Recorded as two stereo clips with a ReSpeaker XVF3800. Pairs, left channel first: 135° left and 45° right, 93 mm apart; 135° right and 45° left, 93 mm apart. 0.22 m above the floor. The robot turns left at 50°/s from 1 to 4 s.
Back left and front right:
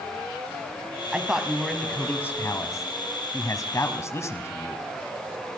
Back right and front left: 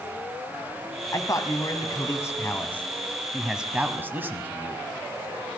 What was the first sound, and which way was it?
A man speaking, 115° right.